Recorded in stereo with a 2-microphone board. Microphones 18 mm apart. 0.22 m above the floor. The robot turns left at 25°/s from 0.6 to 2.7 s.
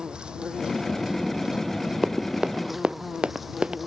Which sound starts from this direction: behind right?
An insect, at 0.0 s.